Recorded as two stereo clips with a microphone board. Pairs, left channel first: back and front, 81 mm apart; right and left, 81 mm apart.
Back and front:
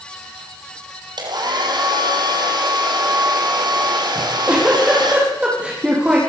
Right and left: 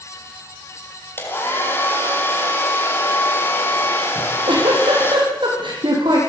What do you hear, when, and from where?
1.2 s a hair dryer: 25° right, 5 m
4.2 s a giggle: 75° left, 8.5 m